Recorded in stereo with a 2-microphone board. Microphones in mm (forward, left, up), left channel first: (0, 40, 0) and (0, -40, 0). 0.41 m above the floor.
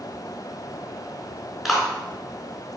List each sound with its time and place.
1.6 s a clap: centre (ahead or behind), 3.5 m